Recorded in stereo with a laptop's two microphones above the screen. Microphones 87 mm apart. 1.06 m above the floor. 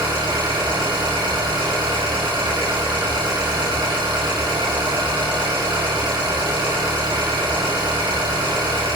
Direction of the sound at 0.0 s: 70° right (ahead or behind).